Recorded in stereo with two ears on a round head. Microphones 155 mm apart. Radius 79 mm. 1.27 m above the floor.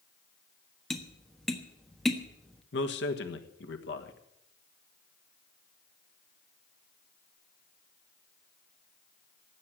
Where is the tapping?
Centre (ahead or behind), 1.3 m.